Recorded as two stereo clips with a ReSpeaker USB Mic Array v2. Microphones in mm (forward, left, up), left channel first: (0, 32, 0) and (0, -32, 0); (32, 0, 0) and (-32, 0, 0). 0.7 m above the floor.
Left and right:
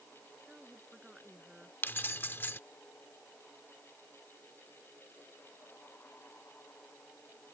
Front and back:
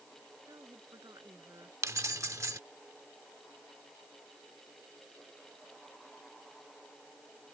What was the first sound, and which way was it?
A woman speaking, 170° right.